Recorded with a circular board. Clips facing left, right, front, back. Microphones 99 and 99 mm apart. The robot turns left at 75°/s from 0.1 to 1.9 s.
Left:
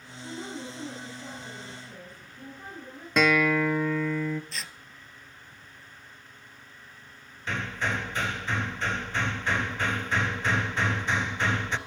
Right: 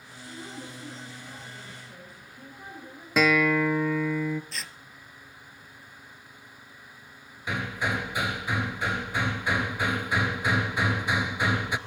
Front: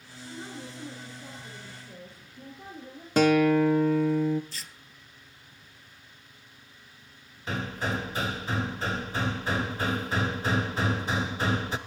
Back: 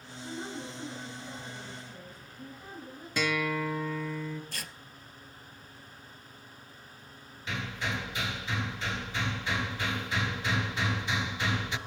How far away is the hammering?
About 1.0 m.